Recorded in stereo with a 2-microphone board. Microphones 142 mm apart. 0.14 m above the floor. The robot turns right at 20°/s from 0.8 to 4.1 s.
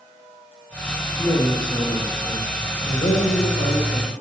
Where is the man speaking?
35° left, 3 m; by 4.1 s 95° left, 3 m.